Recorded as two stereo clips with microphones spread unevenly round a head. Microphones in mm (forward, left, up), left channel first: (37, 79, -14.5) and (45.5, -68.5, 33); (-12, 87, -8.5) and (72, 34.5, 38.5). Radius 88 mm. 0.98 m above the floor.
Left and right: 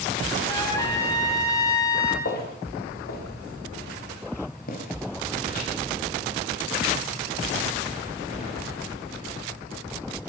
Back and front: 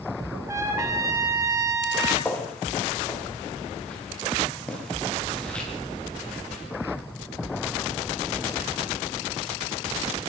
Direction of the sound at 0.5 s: 30° left.